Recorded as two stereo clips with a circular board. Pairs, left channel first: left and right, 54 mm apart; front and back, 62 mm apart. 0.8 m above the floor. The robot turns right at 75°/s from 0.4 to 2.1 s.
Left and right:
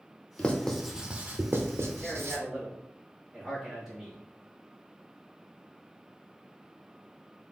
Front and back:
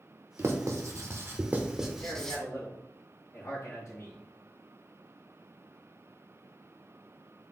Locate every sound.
0.4 s writing: 150° left, 0.6 m; by 2.4 s 80° right, 0.6 m
2.0 s a man speaking: 15° right, 1.6 m; by 4.2 s 10° right, 1.6 m